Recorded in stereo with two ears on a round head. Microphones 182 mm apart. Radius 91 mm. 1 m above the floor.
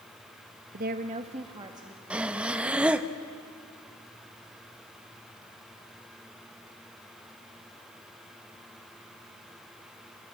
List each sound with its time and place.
0.7 s a woman speaking: 45° right (ahead or behind), 1.1 m; by 2.0 s 20° right (ahead or behind), 2.5 m
2.1 s breathing: 5° right (ahead or behind), 0.8 m